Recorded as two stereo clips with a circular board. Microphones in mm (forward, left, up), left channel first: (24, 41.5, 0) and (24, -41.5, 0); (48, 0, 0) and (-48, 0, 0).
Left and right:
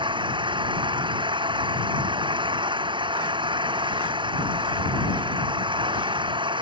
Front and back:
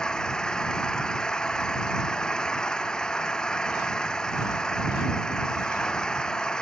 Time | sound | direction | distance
0.0 | an engine running | 80° right | ?